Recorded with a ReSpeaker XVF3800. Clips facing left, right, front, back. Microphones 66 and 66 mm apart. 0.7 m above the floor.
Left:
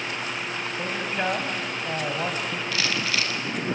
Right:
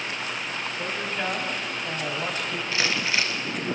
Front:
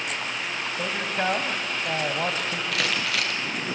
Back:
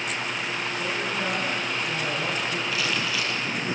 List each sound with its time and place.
0.8 s a man speaking: 20° left, 4 m
2.7 s crumpling: 25° right, 3 m